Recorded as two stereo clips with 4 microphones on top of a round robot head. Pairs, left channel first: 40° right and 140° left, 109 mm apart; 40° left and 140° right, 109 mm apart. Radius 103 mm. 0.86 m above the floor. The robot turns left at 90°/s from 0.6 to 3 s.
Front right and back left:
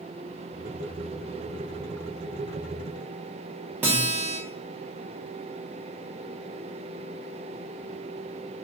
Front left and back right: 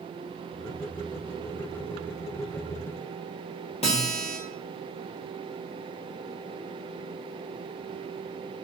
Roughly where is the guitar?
Left.